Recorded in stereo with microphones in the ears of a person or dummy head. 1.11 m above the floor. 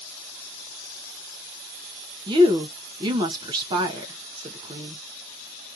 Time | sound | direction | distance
2.3 | a woman speaking | 20° right (ahead or behind) | 0.5 m